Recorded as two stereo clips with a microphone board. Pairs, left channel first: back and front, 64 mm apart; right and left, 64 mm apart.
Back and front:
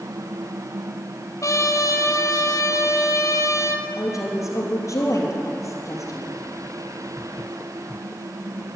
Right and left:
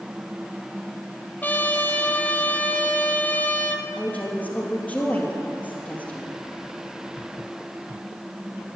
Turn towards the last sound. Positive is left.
turn(degrees=-150)